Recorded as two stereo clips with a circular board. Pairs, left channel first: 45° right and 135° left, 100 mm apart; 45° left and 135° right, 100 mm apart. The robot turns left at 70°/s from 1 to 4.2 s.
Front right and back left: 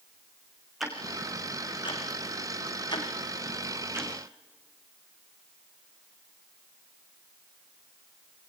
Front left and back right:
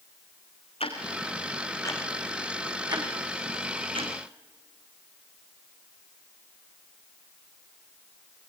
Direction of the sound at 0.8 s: 45° left.